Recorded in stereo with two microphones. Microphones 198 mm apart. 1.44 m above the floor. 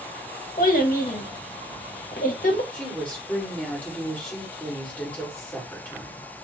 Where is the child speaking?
45° left (ahead or behind), 1.2 m.